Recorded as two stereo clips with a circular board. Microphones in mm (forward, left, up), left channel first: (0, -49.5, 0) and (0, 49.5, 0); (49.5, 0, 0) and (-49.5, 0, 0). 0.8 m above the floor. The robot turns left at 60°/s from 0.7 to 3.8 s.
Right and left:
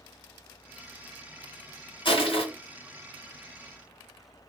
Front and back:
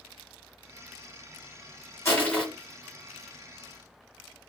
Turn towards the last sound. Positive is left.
turn(degrees=-165)